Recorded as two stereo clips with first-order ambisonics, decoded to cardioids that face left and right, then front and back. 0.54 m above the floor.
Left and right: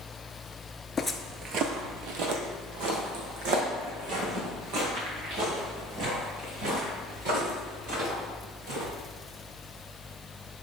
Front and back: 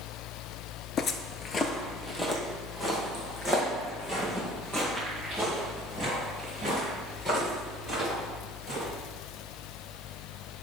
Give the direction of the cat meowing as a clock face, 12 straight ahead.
No cat meowing in this recording.